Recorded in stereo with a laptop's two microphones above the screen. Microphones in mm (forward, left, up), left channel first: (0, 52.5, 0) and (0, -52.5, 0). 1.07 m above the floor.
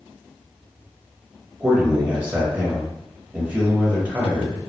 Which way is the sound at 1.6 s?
15° right (ahead or behind).